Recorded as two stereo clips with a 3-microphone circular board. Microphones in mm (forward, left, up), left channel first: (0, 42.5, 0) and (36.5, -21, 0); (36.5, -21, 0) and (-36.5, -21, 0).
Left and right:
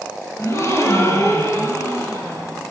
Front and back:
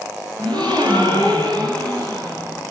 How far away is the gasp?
About 5 m.